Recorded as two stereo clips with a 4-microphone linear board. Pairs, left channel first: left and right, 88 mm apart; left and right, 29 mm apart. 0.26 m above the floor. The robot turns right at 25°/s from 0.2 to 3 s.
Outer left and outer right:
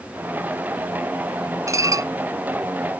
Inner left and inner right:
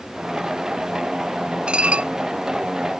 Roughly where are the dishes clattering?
Right.